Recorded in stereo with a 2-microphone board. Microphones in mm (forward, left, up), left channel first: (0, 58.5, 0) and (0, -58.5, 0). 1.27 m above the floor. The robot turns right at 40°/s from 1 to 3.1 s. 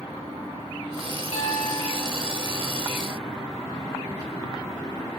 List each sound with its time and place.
1.3 s a piano: 80° left, 4.5 m; by 2.7 s 135° left, 4.5 m